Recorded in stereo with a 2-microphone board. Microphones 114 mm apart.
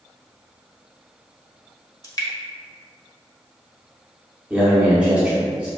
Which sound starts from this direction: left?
Dripping, at 2.0 s.